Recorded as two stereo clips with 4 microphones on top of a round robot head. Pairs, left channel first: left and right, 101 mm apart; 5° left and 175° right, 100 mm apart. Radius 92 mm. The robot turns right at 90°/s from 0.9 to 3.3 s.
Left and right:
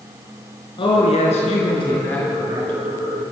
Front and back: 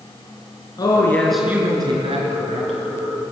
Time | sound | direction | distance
0.8 | a man speaking | 55° left | 6 m